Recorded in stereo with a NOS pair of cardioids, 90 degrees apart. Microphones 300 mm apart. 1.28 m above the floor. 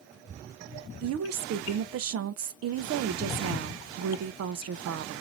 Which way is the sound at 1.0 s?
55° right.